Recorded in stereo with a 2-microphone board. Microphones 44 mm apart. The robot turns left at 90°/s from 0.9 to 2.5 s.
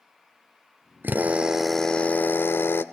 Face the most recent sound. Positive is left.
turn(degrees=105)